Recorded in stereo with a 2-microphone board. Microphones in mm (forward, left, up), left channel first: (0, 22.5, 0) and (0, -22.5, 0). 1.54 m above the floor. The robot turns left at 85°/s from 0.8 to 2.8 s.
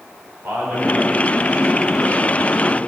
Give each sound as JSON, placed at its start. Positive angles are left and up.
{"t": 0.4, "sound": "a man speaking", "azimuth_deg": -55, "distance_m": 4.5}